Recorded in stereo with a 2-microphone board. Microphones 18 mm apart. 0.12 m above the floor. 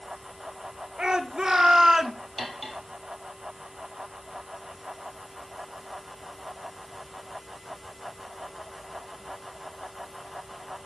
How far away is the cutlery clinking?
About 1.7 m.